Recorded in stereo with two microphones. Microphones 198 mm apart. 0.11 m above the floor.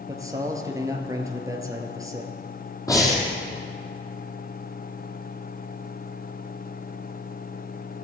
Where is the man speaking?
15° right (ahead or behind), 1.7 m.